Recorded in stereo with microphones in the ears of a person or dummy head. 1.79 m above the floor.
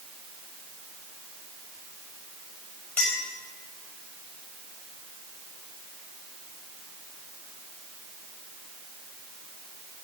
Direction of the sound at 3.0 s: 15° left (ahead or behind).